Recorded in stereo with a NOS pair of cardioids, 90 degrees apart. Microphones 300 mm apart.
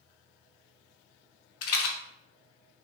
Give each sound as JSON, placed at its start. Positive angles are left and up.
{"t": 1.6, "sound": "a rattle", "azimuth_deg": 55, "distance_m": 0.6}